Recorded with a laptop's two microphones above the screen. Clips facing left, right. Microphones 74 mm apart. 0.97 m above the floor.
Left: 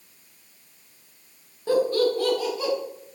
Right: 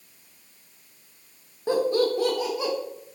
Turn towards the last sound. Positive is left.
turn(degrees=-20)  # may be behind; listen again after turning